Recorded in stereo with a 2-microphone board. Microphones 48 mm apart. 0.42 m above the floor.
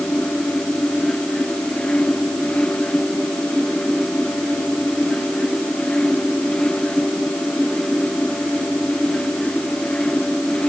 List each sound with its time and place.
Only background noise.